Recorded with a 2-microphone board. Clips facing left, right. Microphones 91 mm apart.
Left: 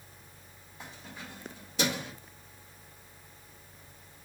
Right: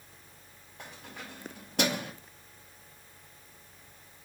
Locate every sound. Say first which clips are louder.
0.8 s keys jangling: even; 65° right (ahead or behind), 1.9 m; by 2.1 s 50° right (ahead or behind), 0.6 m